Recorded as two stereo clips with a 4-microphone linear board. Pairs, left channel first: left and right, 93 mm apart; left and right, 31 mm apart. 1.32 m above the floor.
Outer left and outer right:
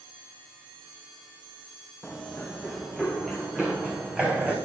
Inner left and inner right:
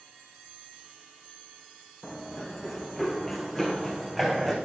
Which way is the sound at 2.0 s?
5° left (ahead or behind).